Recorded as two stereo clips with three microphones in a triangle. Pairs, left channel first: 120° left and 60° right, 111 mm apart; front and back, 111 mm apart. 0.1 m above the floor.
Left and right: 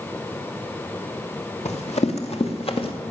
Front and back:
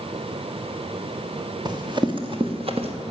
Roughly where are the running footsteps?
Behind left.